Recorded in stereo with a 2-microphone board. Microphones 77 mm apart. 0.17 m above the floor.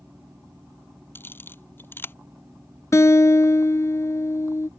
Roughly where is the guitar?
Left.